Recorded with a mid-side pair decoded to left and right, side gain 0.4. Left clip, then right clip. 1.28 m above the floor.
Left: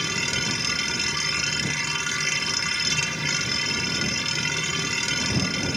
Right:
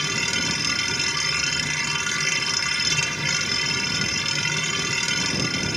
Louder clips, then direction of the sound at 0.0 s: Right 2 dB; 20° right.